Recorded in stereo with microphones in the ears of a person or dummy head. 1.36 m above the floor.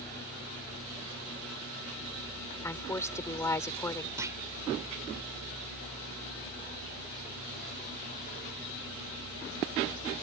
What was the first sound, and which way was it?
A woman speaking, 15° left (ahead or behind).